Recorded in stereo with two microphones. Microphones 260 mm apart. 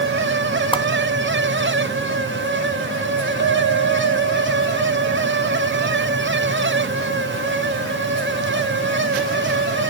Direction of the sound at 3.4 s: 75° right (ahead or behind).